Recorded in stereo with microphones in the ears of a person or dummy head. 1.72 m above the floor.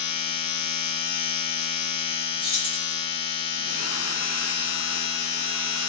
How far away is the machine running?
About 1.0 m.